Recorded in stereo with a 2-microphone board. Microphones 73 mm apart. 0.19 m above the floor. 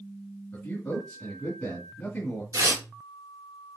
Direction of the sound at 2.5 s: 50° right (ahead or behind).